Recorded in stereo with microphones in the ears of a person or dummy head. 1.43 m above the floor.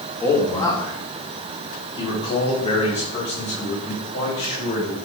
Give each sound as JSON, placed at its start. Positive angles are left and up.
{"t": 0.2, "sound": "a man speaking", "side_deg": 10, "distance_m": 1.6}